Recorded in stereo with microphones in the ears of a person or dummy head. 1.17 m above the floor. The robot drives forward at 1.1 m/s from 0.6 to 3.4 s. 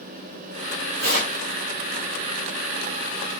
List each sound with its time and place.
1.0 s tearing paper: 70° right (ahead or behind), 2.5 m; by 1.4 s 60° right (ahead or behind), 3 m